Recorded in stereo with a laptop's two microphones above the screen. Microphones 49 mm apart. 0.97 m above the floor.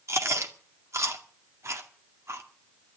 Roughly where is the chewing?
Right.